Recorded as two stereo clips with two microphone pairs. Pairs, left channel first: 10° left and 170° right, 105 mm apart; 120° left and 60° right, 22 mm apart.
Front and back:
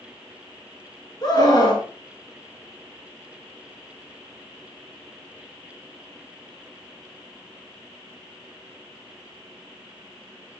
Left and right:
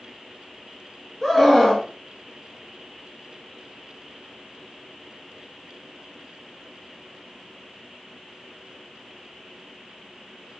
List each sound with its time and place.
1.2 s a scream: 25° left, 1.6 m